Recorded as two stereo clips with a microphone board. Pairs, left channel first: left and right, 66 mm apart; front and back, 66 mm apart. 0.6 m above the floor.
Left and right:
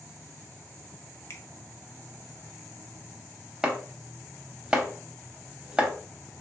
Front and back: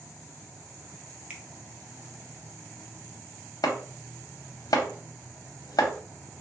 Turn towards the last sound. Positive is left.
turn(degrees=-15)